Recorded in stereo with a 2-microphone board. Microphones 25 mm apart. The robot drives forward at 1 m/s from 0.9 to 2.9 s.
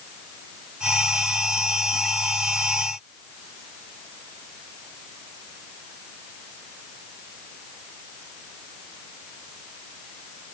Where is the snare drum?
I don't hear a snare drum.